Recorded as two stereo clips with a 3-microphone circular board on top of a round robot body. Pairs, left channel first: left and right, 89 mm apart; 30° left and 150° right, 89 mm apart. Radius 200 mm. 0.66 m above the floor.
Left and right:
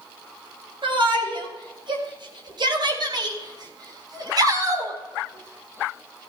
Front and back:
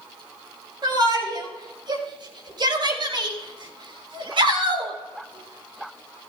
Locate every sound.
0.8 s a shout: 110° right, 6 m; by 6.3 s 155° right, 2.5 m